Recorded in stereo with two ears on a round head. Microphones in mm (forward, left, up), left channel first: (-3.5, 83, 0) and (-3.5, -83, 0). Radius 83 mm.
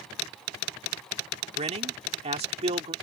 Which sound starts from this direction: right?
A man speaking, at 1.6 s.